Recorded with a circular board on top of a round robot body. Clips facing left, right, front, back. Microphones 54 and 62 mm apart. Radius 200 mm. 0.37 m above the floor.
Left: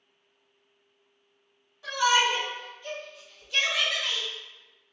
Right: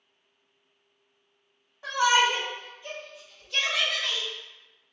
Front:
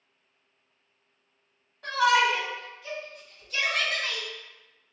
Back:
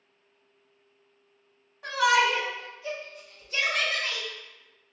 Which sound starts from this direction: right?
A shout, at 1.8 s.